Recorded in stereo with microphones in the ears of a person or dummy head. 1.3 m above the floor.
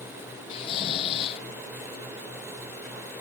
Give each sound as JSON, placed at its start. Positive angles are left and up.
{"t": 0.5, "sound": "snoring", "side_deg": 30}